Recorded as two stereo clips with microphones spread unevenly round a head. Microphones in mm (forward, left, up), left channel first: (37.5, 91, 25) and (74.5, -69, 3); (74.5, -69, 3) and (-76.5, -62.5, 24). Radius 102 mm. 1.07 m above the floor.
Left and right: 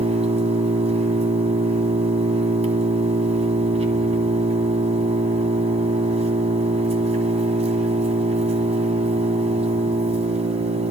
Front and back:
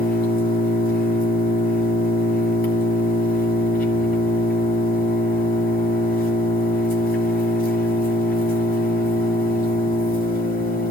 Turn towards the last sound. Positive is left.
turn(degrees=-25)